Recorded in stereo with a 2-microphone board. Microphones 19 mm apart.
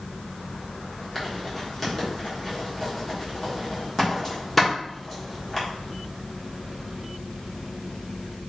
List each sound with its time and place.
1.1 s writing: 10° left (ahead or behind), 1.6 m